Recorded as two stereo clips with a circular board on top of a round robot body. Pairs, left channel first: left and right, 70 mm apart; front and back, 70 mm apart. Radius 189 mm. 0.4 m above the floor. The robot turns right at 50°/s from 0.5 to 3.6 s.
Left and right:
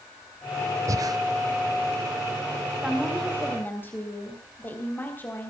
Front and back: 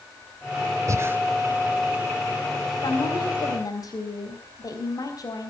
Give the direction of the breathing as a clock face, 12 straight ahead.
4 o'clock.